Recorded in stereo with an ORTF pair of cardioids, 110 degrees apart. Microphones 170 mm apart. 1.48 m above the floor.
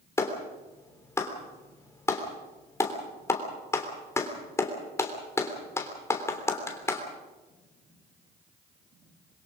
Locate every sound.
0.2 s a clap: 15° left, 3.5 m